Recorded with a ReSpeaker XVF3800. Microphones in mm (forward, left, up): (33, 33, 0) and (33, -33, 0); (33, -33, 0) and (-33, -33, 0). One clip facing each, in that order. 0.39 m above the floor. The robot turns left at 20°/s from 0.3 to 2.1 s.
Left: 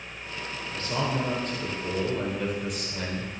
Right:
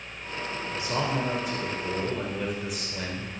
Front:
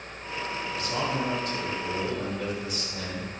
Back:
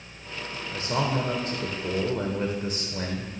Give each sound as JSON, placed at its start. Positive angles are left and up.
{"t": 0.7, "sound": "a man speaking", "azimuth_deg": -150, "distance_m": 1.0}